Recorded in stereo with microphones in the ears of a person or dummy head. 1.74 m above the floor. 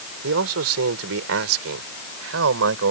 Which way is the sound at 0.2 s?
85° right.